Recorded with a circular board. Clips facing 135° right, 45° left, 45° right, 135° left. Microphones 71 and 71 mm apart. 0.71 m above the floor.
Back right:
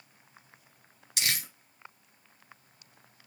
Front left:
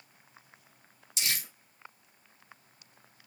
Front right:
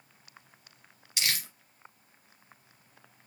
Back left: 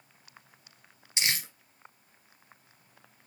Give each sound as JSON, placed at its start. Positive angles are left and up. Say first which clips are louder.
{"t": 1.2, "sound": "crumpling", "louder": "back right 2 dB, back left 2 dB", "azimuth_deg": -155, "distance_m": 1.9}